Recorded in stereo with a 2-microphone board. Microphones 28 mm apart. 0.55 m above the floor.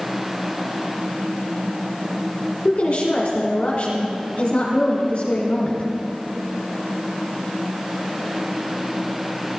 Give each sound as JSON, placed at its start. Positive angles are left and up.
{"t": 2.6, "sound": "a woman speaking", "side_deg": 55, "distance_m": 1.7}